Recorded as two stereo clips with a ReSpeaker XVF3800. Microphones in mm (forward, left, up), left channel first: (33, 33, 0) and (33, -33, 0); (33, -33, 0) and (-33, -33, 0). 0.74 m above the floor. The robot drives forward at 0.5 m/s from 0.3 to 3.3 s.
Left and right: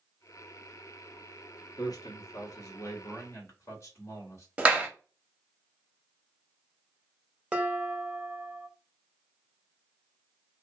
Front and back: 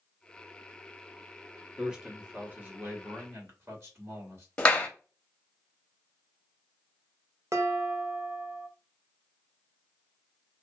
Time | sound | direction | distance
1.8 | a man speaking | 100° left | 1.1 m
4.6 | a clap | 50° right | 0.6 m
7.5 | dishes clattering | 155° right | 0.6 m